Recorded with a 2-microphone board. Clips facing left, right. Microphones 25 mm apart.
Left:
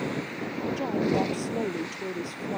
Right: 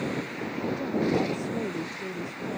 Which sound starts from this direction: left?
A woman speaking, at 0.8 s.